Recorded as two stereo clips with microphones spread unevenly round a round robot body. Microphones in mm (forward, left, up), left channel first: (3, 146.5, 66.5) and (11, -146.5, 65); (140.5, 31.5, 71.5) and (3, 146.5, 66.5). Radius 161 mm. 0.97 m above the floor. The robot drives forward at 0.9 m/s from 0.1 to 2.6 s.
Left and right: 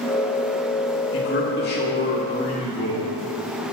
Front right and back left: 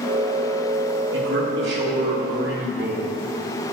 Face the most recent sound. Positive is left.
turn(degrees=155)